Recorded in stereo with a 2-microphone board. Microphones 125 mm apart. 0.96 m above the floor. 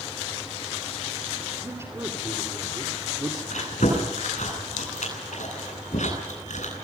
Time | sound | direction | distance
1.6 | a man speaking | 20° right (ahead or behind) | 2.5 m
3.5 | chewing | 70° left (ahead or behind) | 10 m